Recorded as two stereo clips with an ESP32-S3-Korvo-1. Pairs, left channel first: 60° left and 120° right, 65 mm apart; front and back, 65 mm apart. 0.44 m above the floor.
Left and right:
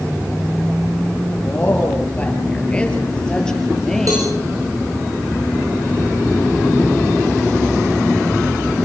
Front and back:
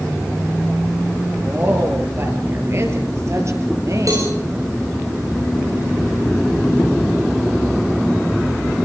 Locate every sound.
1.4 s a woman speaking: 125° left, 7 m; by 4.4 s 145° left, 8 m
4.1 s a cowbell: 150° right, 7 m